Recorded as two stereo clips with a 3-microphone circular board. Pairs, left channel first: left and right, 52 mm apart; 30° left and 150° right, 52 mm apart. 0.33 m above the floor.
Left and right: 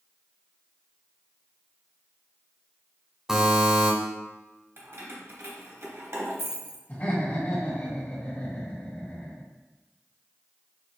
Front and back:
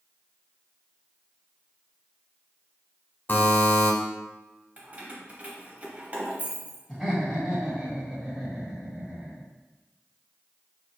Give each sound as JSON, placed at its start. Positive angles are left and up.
{"t": 3.3, "sound": "a buzzer", "azimuth_deg": -15, "distance_m": 1.1}
{"t": 4.8, "sound": "keys jangling", "azimuth_deg": -90, "distance_m": 1.0}
{"t": 6.9, "sound": "laughter", "azimuth_deg": 115, "distance_m": 1.7}